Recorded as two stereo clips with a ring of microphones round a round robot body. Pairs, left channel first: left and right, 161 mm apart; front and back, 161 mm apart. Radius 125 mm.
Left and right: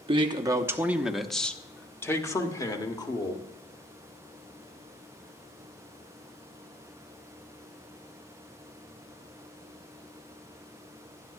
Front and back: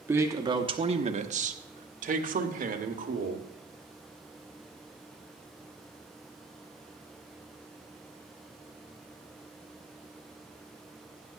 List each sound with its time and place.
0.1 s a man speaking: 110° right, 1.0 m; by 3.5 s 150° left, 2.5 m